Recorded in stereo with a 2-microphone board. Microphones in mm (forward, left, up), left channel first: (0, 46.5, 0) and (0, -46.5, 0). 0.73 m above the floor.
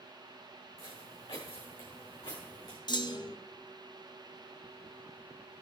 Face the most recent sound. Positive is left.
turn(degrees=55)  # may be behind; listen again after turning